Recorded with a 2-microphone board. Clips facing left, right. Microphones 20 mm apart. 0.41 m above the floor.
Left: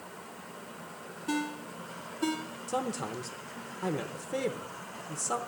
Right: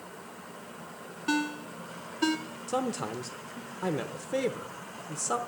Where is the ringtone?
40° right (ahead or behind), 1.7 m.